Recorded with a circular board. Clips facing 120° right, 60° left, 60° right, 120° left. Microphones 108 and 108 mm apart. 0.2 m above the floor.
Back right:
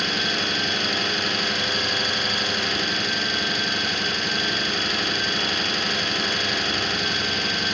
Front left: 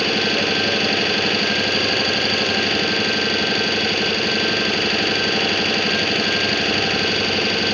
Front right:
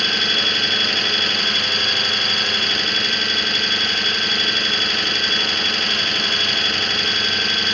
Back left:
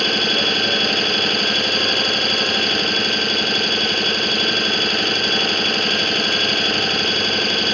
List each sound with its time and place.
0.0 s an engine running: 80° left, 0.9 m